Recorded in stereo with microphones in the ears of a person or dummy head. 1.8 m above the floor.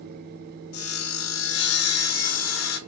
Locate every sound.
0.7 s sawing: 85° left, 0.7 m